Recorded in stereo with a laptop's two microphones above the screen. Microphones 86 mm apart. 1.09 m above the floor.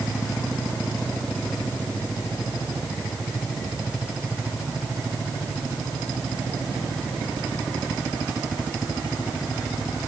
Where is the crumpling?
I don't hear crumpling.